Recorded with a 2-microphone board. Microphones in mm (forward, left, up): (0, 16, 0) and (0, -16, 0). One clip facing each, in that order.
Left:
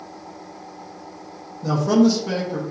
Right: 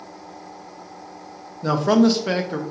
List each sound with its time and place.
1.6 s a man speaking: 45° right (ahead or behind), 1.0 m